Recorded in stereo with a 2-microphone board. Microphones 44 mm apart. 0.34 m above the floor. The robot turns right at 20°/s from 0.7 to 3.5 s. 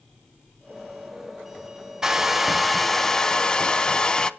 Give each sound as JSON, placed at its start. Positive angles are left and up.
{"t": 2.0, "sound": "a hair dryer", "side_deg": -10, "distance_m": 0.7}